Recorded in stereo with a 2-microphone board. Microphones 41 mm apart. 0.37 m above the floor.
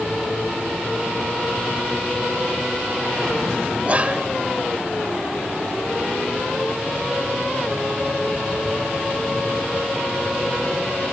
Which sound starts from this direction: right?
Whispering, at 3.9 s.